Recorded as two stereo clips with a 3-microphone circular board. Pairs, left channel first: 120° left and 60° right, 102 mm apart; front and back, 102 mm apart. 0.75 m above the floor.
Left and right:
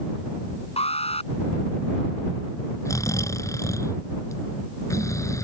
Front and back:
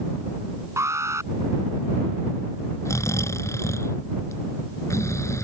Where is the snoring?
60° left.